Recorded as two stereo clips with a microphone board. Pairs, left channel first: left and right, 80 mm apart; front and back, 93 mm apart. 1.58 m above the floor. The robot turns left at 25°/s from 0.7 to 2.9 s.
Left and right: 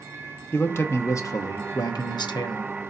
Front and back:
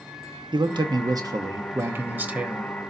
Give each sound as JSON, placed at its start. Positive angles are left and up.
{"t": 0.5, "sound": "a man speaking", "azimuth_deg": 145, "distance_m": 0.9}